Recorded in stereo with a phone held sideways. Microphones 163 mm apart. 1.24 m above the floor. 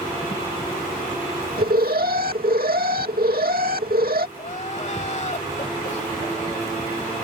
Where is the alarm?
70° right (ahead or behind).